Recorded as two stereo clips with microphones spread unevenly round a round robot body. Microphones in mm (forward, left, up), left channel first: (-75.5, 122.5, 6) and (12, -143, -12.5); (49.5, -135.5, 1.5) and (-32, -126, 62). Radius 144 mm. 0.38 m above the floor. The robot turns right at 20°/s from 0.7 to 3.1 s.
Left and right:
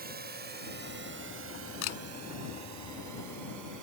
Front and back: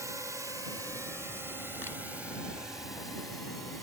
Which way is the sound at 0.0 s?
95° right.